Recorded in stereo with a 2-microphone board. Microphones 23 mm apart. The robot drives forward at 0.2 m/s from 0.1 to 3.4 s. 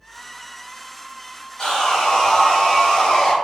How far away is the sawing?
About 1.6 m.